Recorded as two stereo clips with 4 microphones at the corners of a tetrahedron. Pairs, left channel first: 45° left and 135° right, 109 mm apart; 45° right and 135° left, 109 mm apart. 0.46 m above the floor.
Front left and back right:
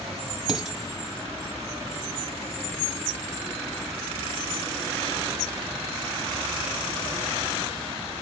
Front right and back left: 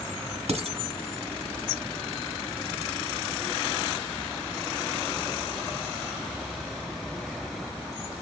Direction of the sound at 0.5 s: 135° left.